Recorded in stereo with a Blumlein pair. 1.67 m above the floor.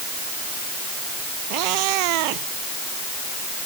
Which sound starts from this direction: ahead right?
A cat meowing, at 1.5 s.